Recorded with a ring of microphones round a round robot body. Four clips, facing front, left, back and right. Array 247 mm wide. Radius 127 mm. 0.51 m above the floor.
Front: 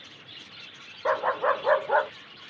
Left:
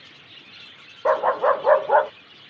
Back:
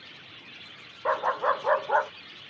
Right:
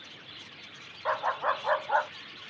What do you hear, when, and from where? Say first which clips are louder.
1.1 s a dog barking: left 10 dB, front 1 dB; 80° left